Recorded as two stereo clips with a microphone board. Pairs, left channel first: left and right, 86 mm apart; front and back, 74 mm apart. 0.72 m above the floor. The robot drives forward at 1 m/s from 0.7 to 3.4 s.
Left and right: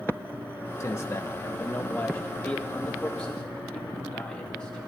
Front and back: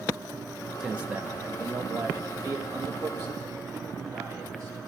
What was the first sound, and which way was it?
A man speaking, 100° left.